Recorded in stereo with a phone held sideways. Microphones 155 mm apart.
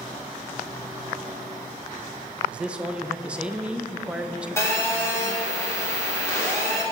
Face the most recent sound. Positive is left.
turn(degrees=15)  # may be behind; listen again after turning